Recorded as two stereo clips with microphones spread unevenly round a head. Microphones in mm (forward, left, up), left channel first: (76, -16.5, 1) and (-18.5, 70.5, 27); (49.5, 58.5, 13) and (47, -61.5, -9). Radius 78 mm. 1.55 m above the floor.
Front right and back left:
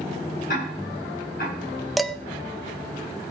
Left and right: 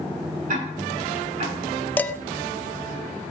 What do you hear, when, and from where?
0.5 s ticking: 75° right, 9 m
2.0 s dishes clattering: 75° left, 0.6 m